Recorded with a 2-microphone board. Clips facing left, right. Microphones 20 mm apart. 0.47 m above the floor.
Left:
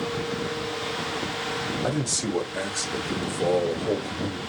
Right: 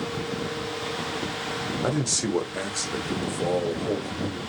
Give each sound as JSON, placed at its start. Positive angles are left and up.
{"t": 1.8, "sound": "a man speaking", "side_deg": -30, "distance_m": 1.5}